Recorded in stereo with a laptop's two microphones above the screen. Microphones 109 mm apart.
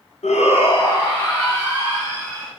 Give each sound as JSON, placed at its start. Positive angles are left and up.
{"t": 0.2, "sound": "a shout", "side_deg": 85, "distance_m": 0.5}